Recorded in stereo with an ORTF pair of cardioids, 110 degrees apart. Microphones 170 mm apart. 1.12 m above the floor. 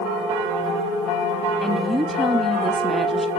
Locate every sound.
1.6 s a woman speaking: straight ahead, 1.4 m